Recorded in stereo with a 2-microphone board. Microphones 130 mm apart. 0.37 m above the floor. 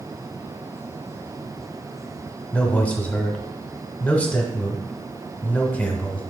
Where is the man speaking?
10° left (ahead or behind), 1.1 m.